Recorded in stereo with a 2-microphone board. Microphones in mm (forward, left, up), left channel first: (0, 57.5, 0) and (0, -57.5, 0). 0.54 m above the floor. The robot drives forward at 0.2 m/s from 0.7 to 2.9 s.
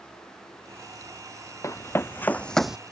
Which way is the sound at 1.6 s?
25° left (ahead or behind).